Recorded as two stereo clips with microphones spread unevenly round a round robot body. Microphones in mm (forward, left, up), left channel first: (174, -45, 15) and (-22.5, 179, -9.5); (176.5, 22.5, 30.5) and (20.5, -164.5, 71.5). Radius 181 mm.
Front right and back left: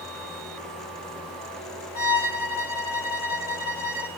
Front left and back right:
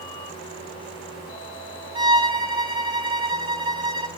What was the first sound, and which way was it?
A violin, 60° right.